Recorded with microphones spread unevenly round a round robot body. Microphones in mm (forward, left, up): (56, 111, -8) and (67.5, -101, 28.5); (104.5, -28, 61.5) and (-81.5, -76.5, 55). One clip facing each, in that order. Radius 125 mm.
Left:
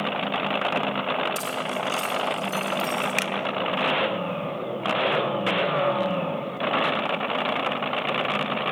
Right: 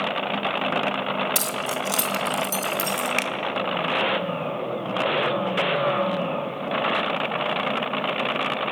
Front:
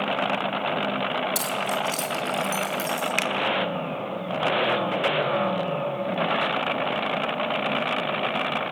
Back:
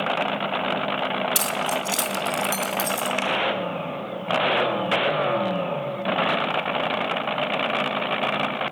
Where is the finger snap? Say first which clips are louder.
Right 1 dB, back 2 dB; 20° left, 1.5 m.